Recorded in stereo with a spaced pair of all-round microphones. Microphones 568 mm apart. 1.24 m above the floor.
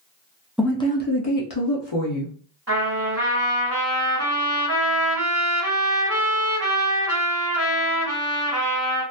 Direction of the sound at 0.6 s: Centre (ahead or behind).